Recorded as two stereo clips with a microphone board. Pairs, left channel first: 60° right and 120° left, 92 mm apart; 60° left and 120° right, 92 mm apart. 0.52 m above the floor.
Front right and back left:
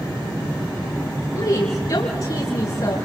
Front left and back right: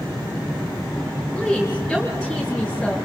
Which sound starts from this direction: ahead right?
A woman speaking, at 1.3 s.